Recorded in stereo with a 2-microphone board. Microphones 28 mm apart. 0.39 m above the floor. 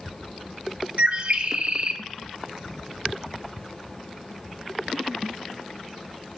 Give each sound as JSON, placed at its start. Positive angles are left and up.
{"t": 1.0, "sound": "a bird", "side_deg": -50, "distance_m": 0.6}